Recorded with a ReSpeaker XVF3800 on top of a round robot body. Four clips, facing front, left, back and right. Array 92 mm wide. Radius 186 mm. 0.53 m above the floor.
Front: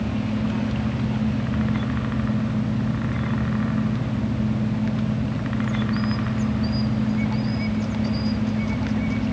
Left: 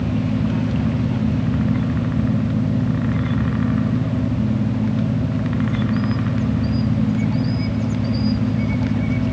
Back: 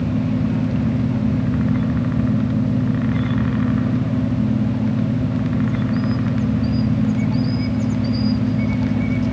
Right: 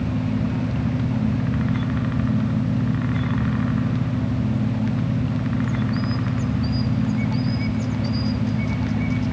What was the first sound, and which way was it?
Only background noise.